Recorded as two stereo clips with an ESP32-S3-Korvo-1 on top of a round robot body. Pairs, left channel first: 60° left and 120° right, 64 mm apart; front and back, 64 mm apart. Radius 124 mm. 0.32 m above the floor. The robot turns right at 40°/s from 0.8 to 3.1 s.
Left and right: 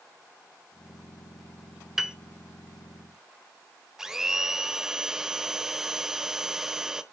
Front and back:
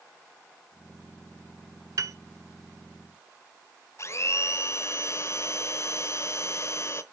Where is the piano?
155° left, 0.8 m; by 2.1 s 165° left, 0.8 m.